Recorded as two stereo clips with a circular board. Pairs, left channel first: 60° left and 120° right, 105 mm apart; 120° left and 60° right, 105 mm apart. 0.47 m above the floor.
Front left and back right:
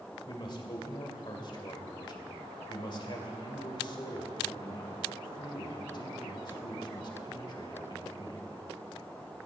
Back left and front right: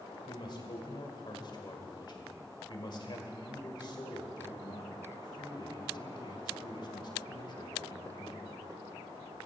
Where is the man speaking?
90° left, 1.9 m.